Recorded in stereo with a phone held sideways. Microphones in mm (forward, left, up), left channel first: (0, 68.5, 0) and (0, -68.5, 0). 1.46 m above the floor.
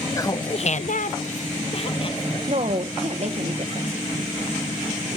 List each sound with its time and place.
0.2 s laughter: 20° left (ahead or behind), 0.8 m; by 3.3 s 30° left (ahead or behind), 2.5 m
2.5 s a woman speaking: 50° right (ahead or behind), 1.4 m